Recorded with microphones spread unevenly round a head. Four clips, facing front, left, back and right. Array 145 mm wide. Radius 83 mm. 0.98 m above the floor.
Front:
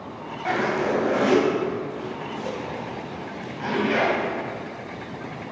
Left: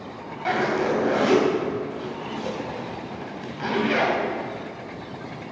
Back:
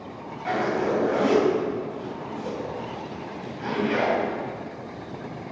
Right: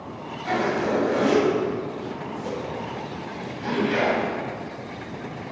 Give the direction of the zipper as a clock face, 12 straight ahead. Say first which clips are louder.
Left 1 dB, front 1 dB; 11 o'clock.